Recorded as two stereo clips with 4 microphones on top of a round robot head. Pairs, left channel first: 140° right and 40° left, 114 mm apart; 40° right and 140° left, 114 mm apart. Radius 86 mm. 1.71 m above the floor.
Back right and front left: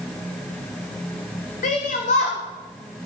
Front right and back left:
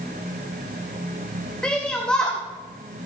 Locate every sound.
1.6 s a shout: 125° right, 1.5 m